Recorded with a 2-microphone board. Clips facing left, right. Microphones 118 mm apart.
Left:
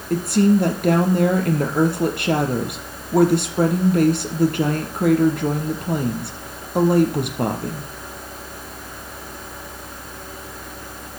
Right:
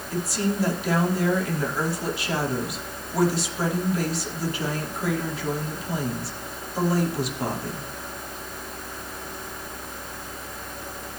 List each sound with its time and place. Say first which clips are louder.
0.1 s a woman speaking: left 10 dB; 60° left (ahead or behind), 4 m